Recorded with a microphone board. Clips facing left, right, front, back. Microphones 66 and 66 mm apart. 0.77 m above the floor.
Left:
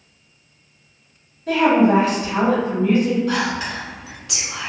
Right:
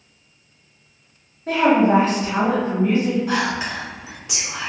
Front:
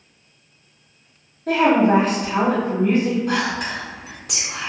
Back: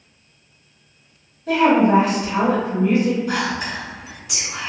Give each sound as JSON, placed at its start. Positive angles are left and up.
{"t": 1.5, "sound": "a woman speaking", "azimuth_deg": -35, "distance_m": 1.9}
{"t": 3.3, "sound": "whispering", "azimuth_deg": -20, "distance_m": 1.8}